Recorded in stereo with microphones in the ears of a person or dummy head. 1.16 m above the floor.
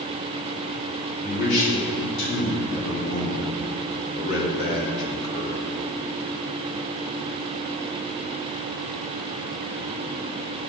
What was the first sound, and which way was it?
A man speaking, 70° left (ahead or behind).